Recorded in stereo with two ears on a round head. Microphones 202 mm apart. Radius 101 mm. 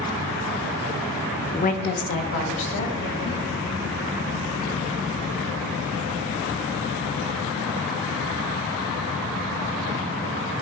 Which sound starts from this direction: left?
A woman speaking, at 1.5 s.